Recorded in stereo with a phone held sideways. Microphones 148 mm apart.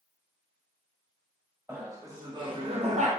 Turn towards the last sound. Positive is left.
turn(degrees=-60)  # may be behind; listen again after turning